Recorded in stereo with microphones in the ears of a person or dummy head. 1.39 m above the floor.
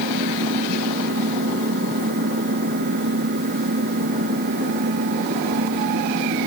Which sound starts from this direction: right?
An engine running, at 0.0 s.